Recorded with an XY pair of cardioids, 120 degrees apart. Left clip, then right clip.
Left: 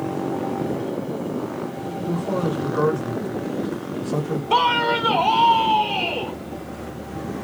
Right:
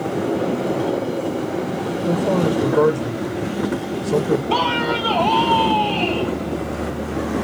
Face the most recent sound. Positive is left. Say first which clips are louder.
# left 5 dB
turn(degrees=0)